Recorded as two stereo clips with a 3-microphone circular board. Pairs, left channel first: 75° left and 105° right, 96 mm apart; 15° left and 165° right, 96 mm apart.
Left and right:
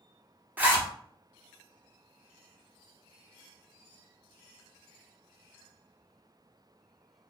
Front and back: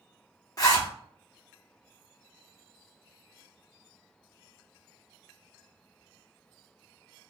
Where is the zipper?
35° right, 0.8 m.